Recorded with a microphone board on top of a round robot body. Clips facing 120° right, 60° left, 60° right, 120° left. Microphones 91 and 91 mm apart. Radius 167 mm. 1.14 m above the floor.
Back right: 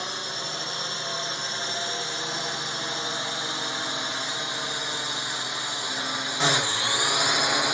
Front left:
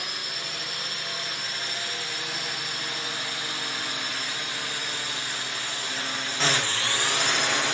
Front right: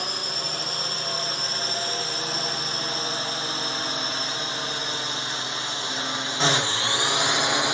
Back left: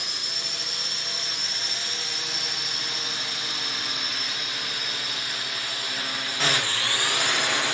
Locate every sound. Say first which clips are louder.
0.0 s a drone: back right 3 dB, front right 6 dB; 70° right; by 7.8 s 75° right